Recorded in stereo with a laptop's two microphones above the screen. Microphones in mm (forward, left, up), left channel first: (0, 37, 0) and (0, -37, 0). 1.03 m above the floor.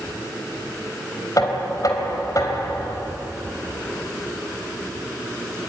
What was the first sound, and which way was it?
Knocking, 55° left (ahead or behind).